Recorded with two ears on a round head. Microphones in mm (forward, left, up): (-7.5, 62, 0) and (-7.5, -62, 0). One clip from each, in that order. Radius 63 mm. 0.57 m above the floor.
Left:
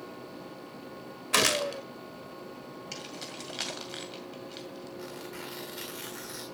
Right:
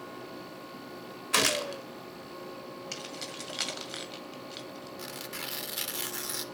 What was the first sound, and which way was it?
A gunshot, 5° right (ahead or behind).